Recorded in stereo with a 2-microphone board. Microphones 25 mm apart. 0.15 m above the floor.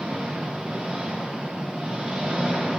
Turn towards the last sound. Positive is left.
turn(degrees=-45)  # may be behind; listen again after turning